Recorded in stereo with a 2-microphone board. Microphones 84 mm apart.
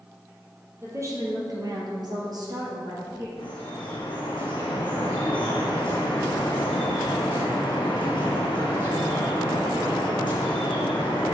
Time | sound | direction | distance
0.8 | a woman speaking | 35° right (ahead or behind) | 2.5 m
3.4 | dripping | 65° left (ahead or behind) | 3 m